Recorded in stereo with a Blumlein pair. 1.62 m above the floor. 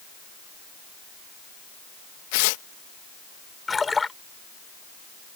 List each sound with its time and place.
2.3 s tearing paper: 45° left
3.7 s a splash: 10° left